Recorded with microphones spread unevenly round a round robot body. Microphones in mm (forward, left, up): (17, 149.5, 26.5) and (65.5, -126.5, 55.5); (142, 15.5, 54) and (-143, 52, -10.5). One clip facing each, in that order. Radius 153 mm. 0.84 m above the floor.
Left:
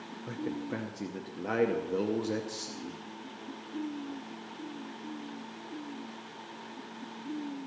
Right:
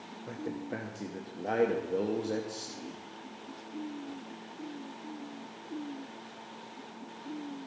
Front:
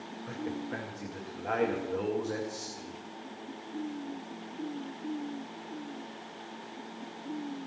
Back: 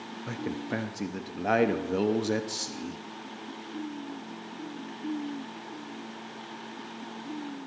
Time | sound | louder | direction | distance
0.3 | a man speaking | left 2 dB, back 3 dB | 175° left | 0.7 m